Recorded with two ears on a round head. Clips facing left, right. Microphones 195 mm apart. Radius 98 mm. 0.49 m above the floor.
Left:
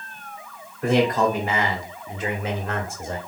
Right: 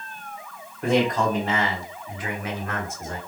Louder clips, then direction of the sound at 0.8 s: Left 2 dB; centre (ahead or behind).